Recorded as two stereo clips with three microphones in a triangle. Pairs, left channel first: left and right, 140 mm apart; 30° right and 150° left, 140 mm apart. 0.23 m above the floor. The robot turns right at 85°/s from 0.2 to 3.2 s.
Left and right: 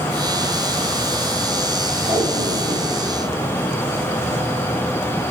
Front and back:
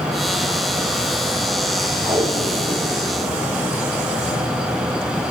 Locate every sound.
2.0 s tape being pulled: 145° right, 7.5 m; by 4.5 s 50° right, 7.5 m